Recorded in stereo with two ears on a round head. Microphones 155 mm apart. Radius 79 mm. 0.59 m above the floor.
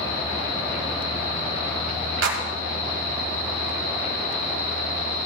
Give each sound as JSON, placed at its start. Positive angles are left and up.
{"t": 2.2, "sound": "a clap", "side_deg": -80, "distance_m": 2.0}